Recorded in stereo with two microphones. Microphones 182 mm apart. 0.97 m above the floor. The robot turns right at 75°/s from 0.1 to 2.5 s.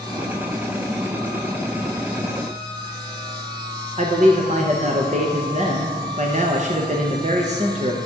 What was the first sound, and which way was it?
A man speaking, 40° right (ahead or behind).